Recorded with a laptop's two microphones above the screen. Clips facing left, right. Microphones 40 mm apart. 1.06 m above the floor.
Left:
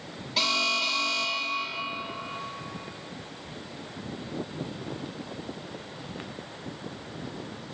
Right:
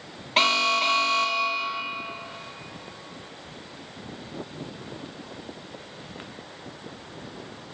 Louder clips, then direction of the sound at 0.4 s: Right 5 dB; 45° right (ahead or behind).